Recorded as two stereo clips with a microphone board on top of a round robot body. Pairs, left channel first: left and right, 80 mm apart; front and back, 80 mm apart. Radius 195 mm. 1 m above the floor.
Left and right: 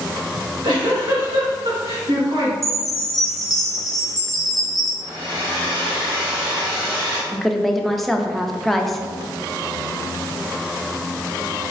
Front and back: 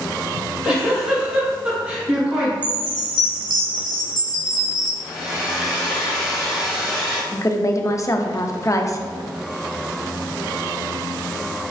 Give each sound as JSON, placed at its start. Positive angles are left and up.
{"t": 0.3, "sound": "a giggle", "azimuth_deg": -110, "distance_m": 1.5}
{"t": 2.6, "sound": "a chime", "azimuth_deg": 175, "distance_m": 1.6}
{"t": 5.0, "sound": "a hair dryer", "azimuth_deg": -105, "distance_m": 1.9}
{"t": 7.3, "sound": "a woman speaking", "azimuth_deg": 5, "distance_m": 0.7}